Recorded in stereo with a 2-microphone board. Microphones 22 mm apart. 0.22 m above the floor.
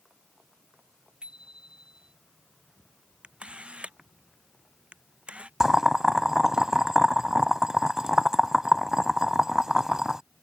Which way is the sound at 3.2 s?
55° right (ahead or behind).